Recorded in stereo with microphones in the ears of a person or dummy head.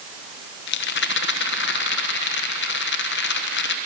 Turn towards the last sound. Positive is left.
turn(degrees=65)  # may be behind; listen again after turning